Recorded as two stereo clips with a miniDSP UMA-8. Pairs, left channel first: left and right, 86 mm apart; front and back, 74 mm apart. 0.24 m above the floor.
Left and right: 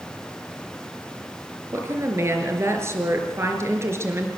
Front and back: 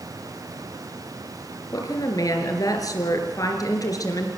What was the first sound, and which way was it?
A woman speaking, 35° right.